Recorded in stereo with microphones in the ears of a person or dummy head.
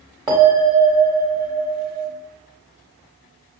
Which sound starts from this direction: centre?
A bell, at 0.3 s.